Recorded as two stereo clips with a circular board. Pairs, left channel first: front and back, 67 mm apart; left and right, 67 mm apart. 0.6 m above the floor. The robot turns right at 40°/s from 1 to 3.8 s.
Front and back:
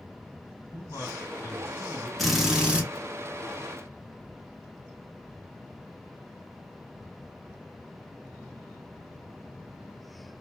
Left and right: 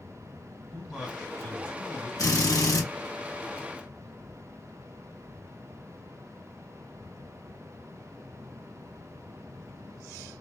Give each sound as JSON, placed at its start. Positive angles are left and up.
{"t": 0.7, "sound": "a man speaking", "azimuth_deg": 20, "distance_m": 2.0}
{"t": 2.2, "sound": "a drill", "azimuth_deg": 85, "distance_m": 1.3}